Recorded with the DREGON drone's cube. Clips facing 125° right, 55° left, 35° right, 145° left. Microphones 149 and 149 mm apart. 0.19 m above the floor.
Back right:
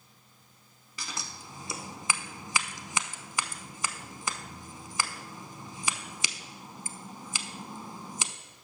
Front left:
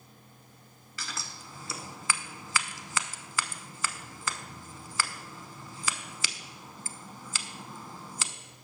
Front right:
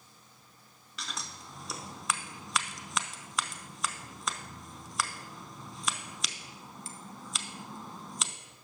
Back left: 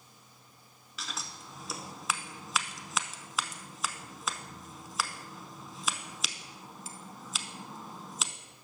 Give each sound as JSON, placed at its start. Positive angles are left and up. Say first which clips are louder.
{"t": 1.0, "sound": "scissors", "louder": "back right 1 dB, even", "azimuth_deg": -130, "distance_m": 0.5}